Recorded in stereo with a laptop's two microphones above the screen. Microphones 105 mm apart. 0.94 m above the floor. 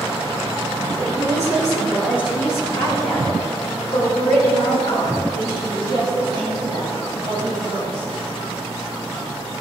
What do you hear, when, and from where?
1.0 s a woman speaking: 15° left (ahead or behind), 2.5 m; by 8.1 s 75° left (ahead or behind), 9 m